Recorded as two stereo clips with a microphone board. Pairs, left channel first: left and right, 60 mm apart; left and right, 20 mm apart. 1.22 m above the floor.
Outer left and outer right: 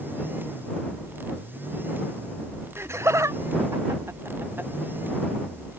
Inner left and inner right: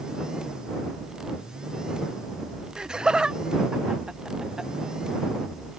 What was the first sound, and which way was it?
Laughter, 45° right (ahead or behind).